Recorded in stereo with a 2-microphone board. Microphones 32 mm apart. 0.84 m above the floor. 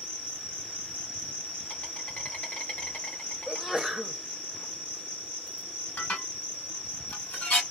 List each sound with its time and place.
0.0 s an insect: 40° left (ahead or behind), 1.2 m
3.5 s a sneeze: 5° right (ahead or behind), 0.7 m
6.0 s dishes clattering: 60° left (ahead or behind), 1.8 m